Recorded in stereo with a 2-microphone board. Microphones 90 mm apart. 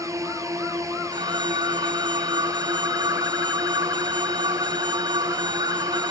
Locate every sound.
0.0 s a drone: 40° right (ahead or behind)
1.1 s a phone ringing: 65° right (ahead or behind)